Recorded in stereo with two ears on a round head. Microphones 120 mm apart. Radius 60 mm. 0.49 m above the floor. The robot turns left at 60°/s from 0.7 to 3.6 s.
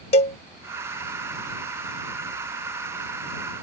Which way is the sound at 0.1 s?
50° left (ahead or behind).